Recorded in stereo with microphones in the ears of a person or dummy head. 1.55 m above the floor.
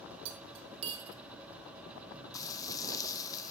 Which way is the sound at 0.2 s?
35° right (ahead or behind).